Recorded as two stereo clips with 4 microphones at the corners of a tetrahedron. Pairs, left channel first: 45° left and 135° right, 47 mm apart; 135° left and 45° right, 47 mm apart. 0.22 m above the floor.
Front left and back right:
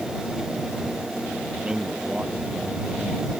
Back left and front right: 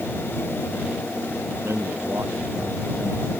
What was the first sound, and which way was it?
A man speaking, 65° right.